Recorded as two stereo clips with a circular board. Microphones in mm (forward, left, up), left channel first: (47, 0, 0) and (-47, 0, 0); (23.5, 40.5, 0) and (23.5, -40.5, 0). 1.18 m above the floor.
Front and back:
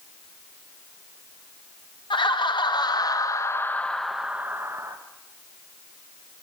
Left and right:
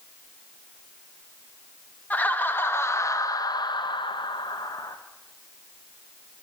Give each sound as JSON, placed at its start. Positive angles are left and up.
{"t": 2.1, "sound": "laughter", "azimuth_deg": 20, "distance_m": 1.3}